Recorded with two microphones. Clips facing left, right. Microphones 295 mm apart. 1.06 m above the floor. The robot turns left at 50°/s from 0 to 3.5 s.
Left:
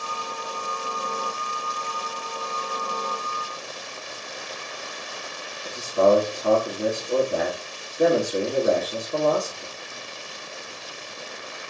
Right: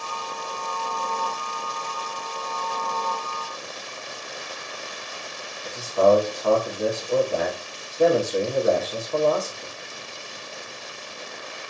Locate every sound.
5.7 s a man speaking: 15° left (ahead or behind), 1.6 m